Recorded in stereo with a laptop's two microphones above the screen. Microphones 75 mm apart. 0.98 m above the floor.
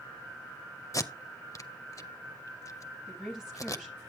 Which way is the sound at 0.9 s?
45° left (ahead or behind).